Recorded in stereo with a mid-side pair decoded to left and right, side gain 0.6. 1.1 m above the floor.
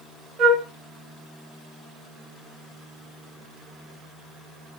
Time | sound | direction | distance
0.4 | a flute | 45° right | 1.5 m